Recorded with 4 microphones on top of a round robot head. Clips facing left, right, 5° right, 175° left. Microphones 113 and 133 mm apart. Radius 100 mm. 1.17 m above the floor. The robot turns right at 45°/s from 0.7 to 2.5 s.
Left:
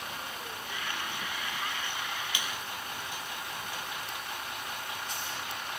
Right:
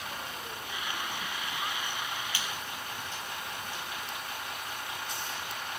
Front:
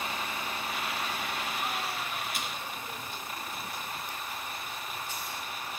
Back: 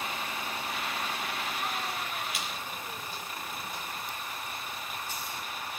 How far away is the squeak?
About 6.5 m.